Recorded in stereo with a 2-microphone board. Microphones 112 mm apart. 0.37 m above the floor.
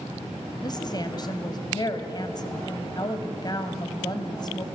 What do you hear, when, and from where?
0.6 s a woman speaking: 35° left (ahead or behind), 2 m